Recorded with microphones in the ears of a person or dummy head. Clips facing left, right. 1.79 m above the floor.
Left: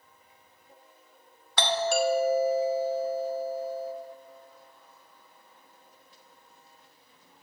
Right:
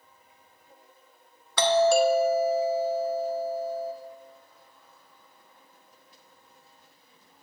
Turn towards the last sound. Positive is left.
turn(degrees=-70)  # may be behind; listen again after turning